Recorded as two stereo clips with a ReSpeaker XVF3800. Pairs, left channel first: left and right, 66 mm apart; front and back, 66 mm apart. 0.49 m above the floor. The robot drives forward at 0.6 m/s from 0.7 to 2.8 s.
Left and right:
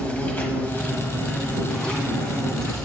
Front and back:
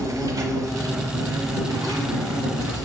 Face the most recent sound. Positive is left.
turn(degrees=170)